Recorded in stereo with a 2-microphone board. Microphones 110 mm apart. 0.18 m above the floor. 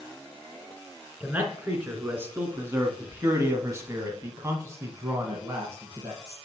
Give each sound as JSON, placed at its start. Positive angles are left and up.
{"t": 1.2, "sound": "a man speaking", "side_deg": -15, "distance_m": 2.0}